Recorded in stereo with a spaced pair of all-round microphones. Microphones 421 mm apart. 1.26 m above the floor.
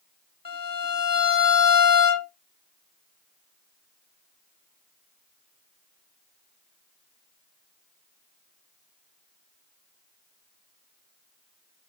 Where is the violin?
55° left (ahead or behind), 0.7 m.